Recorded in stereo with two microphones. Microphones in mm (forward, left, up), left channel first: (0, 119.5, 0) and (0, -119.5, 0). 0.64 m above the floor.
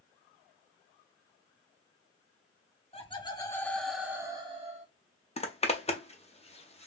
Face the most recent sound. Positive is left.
turn(degrees=25)  # may be behind; listen again after turning